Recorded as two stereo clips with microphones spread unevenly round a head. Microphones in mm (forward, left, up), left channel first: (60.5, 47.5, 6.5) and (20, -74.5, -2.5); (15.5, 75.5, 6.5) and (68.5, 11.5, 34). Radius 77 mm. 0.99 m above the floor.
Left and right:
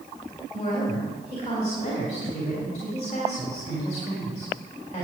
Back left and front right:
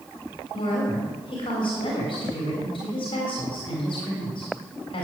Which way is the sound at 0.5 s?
125° left.